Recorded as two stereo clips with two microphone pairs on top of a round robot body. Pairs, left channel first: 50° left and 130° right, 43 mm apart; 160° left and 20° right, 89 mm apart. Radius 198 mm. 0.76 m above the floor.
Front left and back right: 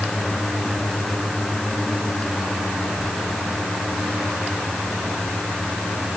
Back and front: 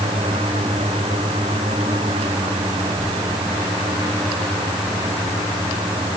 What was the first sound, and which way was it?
Only background noise.